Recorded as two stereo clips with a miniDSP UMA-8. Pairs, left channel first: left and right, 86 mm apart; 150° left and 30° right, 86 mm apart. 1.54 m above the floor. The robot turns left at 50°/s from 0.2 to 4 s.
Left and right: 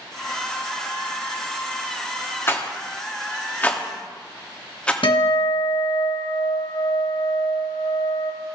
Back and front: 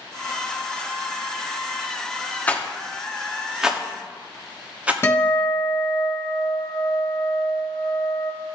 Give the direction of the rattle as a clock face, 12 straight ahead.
9 o'clock.